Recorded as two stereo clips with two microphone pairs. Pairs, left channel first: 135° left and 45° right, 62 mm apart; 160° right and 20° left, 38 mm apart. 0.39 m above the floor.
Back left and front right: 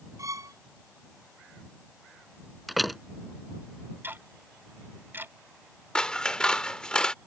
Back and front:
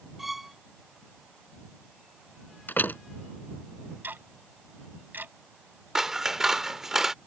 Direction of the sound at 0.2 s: 65° right.